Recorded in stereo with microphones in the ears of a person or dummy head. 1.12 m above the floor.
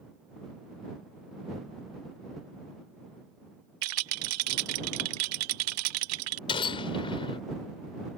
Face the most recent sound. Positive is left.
turn(degrees=30)  # may be behind; listen again after turning